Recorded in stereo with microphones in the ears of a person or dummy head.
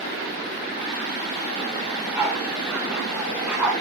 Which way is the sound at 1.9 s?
15° right (ahead or behind).